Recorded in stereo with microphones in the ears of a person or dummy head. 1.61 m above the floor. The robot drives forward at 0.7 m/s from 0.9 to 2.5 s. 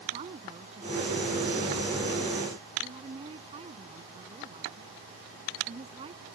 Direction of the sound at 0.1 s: 30° right (ahead or behind).